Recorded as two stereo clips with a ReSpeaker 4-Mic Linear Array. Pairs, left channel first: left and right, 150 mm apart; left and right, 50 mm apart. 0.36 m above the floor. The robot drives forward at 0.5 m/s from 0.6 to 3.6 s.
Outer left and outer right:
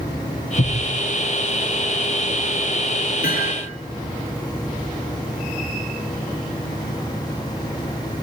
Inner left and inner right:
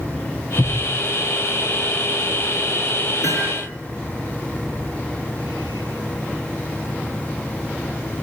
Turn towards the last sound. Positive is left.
turn(degrees=80)